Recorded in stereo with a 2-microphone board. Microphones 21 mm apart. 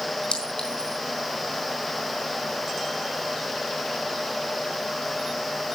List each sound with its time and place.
0.3 s a clink: 75° left (ahead or behind), 4 m